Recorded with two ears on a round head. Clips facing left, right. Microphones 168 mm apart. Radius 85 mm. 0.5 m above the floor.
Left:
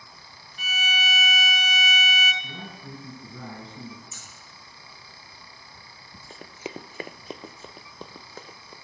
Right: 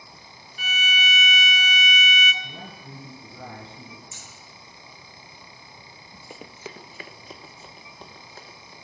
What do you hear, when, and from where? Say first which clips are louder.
0.6 s a violin: right 1 dB; 45° right (ahead or behind), 1.3 m
2.4 s a man speaking: left 1 dB; 80° left, 8 m
4.1 s scissors: right 1 dB; 25° right (ahead or behind), 7.5 m
6.3 s running footsteps: left 3 dB; 10° right (ahead or behind), 0.6 m; by 8.7 s 70° left (ahead or behind), 1.9 m